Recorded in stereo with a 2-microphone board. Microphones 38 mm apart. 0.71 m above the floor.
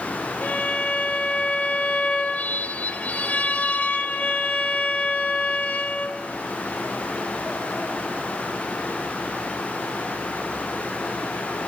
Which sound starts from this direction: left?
A violin, at 0.4 s.